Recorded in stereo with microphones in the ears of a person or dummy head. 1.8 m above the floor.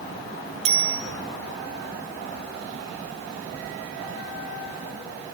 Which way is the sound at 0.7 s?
35° right (ahead or behind).